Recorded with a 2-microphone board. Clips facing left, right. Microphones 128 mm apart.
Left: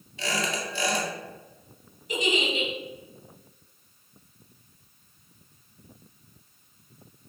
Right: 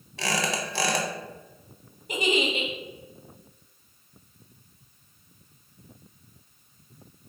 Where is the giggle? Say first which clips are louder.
Right 1 dB; 50° right (ahead or behind), 0.7 m.